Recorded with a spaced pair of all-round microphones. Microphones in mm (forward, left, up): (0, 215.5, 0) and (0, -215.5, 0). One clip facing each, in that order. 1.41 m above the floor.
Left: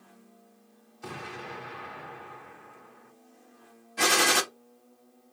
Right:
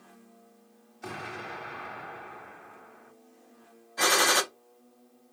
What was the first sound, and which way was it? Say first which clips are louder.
An explosion: even; 10° left (ahead or behind).